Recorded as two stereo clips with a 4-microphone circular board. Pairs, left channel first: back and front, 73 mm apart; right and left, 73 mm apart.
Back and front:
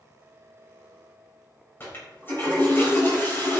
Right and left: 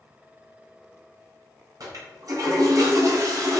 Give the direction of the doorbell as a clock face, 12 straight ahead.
I don't hear a doorbell.